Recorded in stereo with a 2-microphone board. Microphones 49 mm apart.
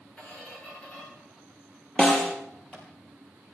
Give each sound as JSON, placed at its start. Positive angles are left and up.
{"t": 0.2, "sound": "a squeak", "side_deg": 20, "distance_m": 7.5}
{"t": 2.0, "sound": "a snare drum", "side_deg": 25, "distance_m": 3.5}